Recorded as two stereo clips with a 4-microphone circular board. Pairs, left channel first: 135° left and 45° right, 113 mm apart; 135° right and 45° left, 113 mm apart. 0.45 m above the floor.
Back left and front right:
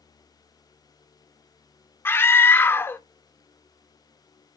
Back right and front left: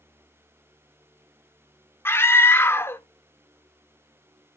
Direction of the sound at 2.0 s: Straight behind.